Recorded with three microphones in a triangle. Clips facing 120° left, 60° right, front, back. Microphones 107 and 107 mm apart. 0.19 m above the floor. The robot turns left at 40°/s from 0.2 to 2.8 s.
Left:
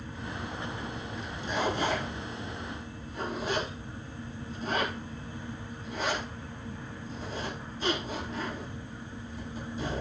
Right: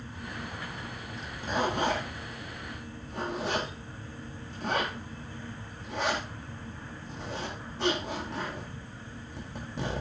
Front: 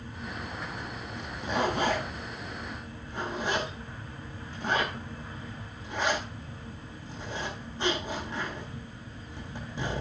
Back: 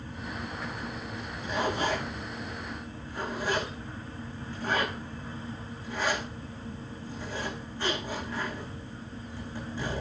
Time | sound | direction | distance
1.2 | a zipper | 5° right | 9.5 m